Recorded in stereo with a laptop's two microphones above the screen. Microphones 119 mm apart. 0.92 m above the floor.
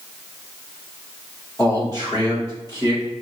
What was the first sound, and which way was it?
A man speaking, 30° left (ahead or behind).